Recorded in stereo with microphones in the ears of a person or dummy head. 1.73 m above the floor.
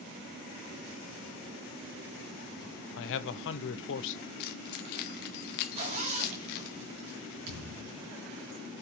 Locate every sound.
3.0 s a man speaking: 65° left (ahead or behind), 0.9 m
4.4 s keys jangling: 50° left (ahead or behind), 0.9 m
5.7 s a zipper: 35° right (ahead or behind), 2.0 m
7.5 s a thud: 60° right (ahead or behind), 3.5 m